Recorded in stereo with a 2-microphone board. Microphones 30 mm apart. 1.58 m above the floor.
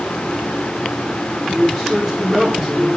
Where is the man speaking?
20° left (ahead or behind), 3.5 m.